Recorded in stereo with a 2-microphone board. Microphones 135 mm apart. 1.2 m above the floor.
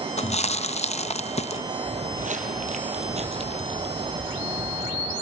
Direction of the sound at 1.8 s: 60° right (ahead or behind).